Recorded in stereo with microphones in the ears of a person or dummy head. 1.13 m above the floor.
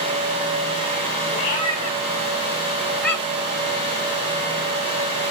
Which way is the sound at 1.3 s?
30° left (ahead or behind).